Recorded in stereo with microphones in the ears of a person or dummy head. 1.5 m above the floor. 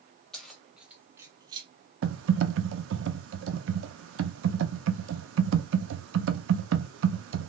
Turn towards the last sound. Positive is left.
turn(degrees=-75)  # may be behind; listen again after turning